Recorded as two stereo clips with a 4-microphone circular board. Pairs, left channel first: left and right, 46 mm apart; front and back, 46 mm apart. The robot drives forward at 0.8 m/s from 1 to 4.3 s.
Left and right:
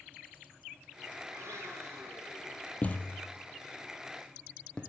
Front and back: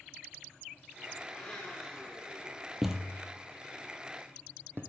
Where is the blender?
70° right, 4.5 m; by 2.7 s 85° right, 4.5 m.